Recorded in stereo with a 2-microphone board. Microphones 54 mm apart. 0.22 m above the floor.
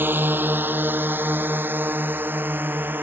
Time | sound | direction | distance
0.0 | a drone | 35° right (ahead or behind) | ?